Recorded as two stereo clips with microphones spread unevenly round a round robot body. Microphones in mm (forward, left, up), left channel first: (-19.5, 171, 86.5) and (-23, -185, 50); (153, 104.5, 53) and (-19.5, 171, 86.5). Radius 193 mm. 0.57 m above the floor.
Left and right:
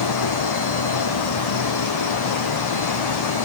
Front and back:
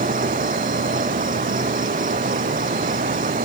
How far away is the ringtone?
I don't hear a ringtone.